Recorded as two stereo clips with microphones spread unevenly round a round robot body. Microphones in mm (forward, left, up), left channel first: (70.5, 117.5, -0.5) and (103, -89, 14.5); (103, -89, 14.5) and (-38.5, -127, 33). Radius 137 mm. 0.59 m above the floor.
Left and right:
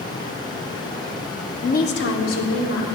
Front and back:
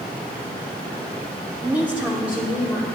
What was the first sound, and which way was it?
A woman speaking, 115° left.